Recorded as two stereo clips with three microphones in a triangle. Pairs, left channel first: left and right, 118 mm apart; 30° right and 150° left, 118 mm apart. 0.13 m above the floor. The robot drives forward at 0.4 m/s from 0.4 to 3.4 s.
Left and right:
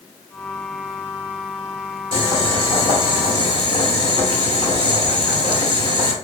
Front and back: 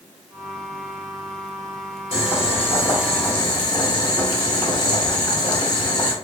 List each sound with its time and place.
2.1 s boiling: 45° right, 1.5 m; by 6.1 s 65° right, 1.3 m